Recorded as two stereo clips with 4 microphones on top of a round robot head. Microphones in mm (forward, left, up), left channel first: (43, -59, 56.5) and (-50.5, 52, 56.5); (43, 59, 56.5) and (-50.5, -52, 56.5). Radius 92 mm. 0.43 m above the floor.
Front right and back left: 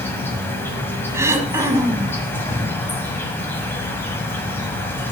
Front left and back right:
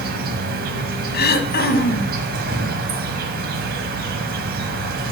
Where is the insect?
125° right, 1.5 m.